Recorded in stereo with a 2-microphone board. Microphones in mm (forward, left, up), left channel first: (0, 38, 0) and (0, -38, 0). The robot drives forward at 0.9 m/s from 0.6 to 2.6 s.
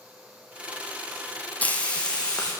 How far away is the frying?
About 1.0 m.